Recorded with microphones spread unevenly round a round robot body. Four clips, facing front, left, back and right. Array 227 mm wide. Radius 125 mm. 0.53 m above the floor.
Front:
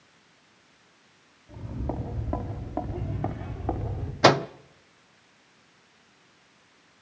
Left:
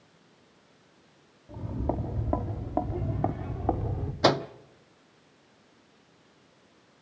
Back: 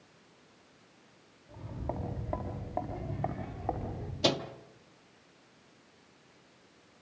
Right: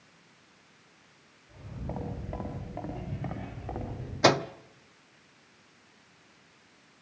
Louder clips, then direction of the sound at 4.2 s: Even, front 11 dB; 5° right.